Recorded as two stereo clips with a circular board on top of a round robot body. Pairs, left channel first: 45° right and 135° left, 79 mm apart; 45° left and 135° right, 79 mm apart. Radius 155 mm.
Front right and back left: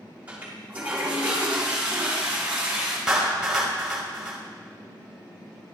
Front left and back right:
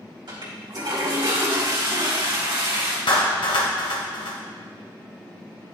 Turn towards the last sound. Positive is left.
turn(degrees=55)